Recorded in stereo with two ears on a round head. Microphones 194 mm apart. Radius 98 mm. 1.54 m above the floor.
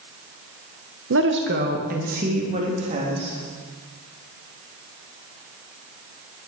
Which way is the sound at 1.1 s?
60° right (ahead or behind).